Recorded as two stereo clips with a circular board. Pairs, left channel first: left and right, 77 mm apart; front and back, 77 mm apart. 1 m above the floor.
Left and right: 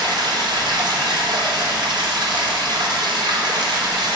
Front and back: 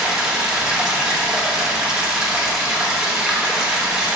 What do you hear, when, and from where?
0.0 s running water: 100° right, 1.0 m